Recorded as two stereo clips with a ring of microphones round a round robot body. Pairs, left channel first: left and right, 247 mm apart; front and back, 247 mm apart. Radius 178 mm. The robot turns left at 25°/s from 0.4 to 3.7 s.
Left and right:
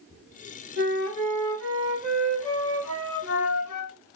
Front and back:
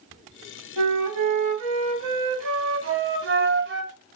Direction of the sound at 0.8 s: 145° right.